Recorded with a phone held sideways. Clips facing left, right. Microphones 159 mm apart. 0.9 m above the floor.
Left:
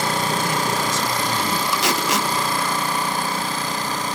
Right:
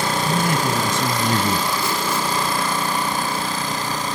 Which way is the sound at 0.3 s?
60° right (ahead or behind).